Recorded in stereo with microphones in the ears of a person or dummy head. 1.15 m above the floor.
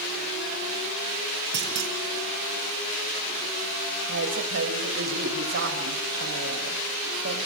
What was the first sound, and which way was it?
A clunk, 65° right (ahead or behind).